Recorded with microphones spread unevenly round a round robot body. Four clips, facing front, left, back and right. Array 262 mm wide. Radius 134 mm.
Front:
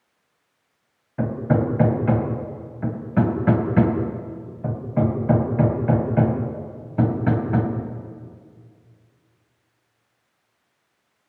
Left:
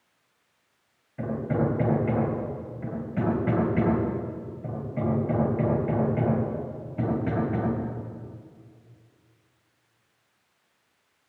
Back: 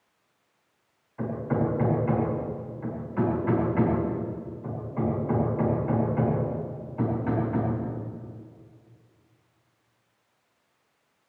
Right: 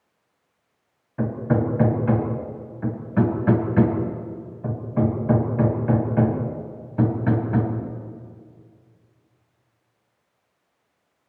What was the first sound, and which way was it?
Hammering, 30° right.